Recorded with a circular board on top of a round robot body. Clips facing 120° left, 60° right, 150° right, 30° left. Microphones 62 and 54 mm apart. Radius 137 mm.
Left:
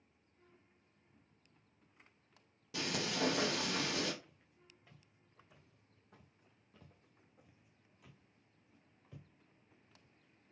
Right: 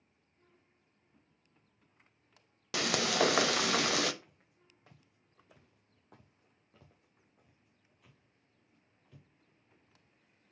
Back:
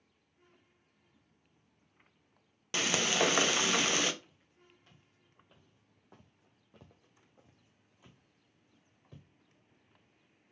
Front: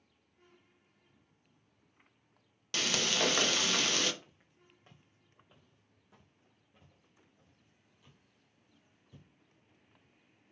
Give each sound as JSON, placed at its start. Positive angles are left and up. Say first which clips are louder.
{"t": 2.7, "sound": "frying", "louder": "right 8 dB, back 2 dB", "azimuth_deg": -75, "distance_m": 0.6}
{"t": 4.2, "sound": "footsteps", "louder": "even, even", "azimuth_deg": -25, "distance_m": 1.1}